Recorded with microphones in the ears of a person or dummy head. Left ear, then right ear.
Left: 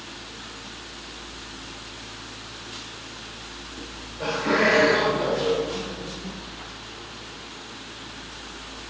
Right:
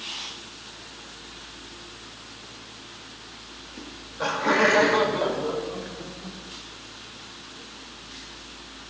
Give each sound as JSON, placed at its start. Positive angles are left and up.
{"t": 3.8, "sound": "laughter", "side_deg": -60, "distance_m": 1.7}